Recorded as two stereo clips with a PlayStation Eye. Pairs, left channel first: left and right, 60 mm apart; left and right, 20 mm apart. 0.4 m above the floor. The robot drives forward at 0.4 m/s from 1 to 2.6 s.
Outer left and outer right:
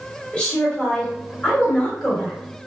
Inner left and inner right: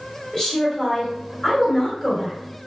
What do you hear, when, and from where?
0.3 s a woman speaking: 15° left (ahead or behind), 1.8 m